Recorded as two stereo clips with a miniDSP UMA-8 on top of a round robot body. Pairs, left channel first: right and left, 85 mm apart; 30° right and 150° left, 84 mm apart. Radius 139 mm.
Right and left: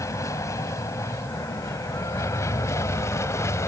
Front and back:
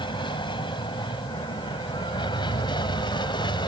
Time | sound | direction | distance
0.0 | an aircraft | 40° right | ?